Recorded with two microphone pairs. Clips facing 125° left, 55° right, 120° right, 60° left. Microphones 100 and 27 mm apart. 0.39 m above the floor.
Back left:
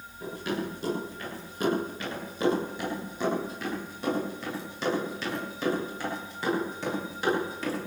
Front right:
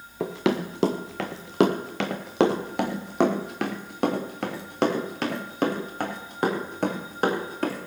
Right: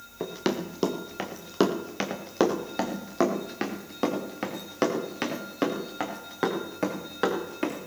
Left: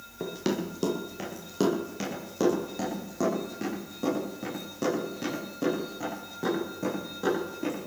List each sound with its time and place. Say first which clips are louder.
0.2 s running footsteps: front right 7 dB, right 1 dB; 50° right, 2.5 m; by 7.8 s 95° right, 7 m